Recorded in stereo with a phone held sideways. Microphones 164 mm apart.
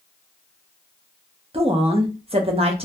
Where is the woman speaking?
35° right (ahead or behind), 0.5 m.